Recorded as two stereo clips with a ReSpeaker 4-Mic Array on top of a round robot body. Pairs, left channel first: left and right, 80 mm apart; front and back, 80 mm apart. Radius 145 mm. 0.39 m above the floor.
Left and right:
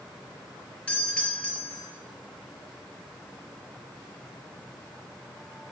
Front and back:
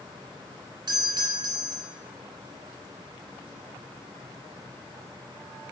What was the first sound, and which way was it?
A doorbell, 160° left.